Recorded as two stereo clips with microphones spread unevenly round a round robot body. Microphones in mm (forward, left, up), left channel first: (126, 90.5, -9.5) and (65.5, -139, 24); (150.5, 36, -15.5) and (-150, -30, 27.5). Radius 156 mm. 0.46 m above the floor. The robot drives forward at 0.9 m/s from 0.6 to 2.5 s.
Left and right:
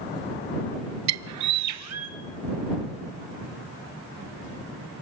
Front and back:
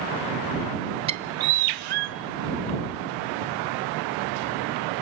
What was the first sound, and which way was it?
A bird, 90° right.